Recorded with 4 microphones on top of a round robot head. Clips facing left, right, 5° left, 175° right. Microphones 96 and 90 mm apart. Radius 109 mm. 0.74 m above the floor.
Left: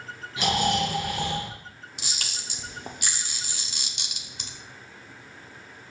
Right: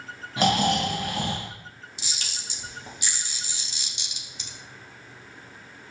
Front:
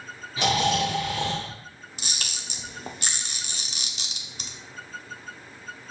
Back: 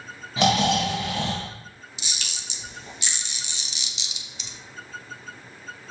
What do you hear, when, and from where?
0.4 s snoring: 145° right, 3 m
2.0 s a camera shutter: 55° left, 1.1 m